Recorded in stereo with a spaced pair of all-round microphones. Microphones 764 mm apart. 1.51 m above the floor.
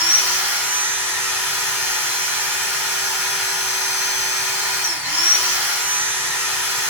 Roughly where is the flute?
No flute in this recording.